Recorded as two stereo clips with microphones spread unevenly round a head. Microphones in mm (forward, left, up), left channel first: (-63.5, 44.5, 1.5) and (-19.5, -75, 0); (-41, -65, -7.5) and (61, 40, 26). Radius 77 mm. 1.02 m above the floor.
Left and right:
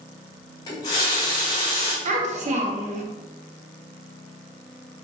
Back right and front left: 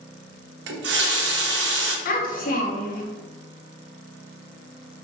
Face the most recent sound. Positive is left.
turn(degrees=-100)